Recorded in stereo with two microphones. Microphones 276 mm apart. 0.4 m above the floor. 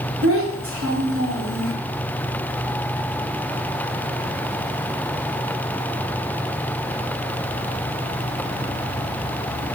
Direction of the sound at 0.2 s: 60° right (ahead or behind).